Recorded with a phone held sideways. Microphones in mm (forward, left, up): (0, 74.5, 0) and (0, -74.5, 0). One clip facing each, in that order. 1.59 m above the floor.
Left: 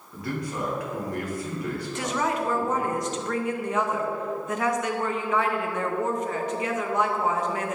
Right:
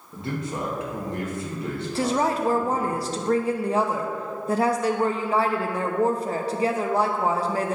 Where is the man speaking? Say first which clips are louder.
Right 1 dB; 25° right (ahead or behind), 2 m.